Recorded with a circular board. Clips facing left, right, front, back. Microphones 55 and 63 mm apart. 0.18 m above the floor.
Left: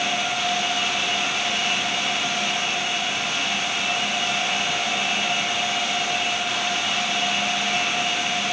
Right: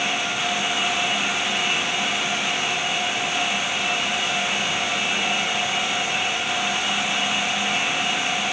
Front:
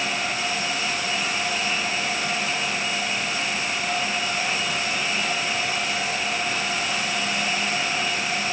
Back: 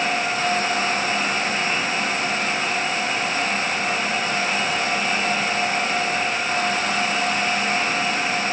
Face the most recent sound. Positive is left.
No sound to turn to.